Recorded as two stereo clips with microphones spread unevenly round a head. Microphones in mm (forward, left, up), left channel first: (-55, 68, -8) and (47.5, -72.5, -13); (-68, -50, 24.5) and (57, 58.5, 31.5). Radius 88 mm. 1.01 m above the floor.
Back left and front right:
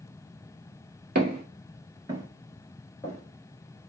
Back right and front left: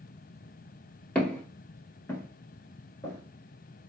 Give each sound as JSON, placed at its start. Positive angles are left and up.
{"t": 1.1, "sound": "footsteps", "azimuth_deg": -60, "distance_m": 1.3}